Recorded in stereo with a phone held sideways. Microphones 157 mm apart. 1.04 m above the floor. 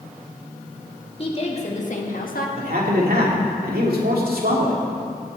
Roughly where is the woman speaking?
Left.